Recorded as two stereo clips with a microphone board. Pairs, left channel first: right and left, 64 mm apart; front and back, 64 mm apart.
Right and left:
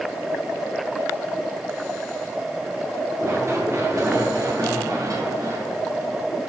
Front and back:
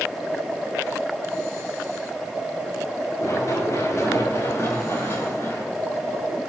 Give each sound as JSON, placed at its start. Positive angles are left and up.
{"t": 3.2, "sound": "running footsteps", "azimuth_deg": 40, "distance_m": 8.0}